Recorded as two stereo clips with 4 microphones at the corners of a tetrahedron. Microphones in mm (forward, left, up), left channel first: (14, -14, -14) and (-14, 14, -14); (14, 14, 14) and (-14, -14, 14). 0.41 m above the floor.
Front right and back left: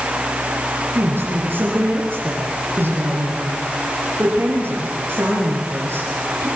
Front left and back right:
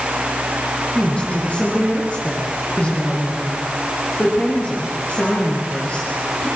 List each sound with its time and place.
0.9 s a woman speaking: 105° left, 7 m